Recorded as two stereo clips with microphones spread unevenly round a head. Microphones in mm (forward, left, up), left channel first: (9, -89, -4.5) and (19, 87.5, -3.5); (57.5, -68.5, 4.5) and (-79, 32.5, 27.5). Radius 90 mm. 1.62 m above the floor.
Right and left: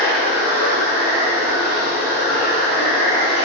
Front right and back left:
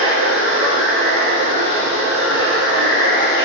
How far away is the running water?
About 1.5 m.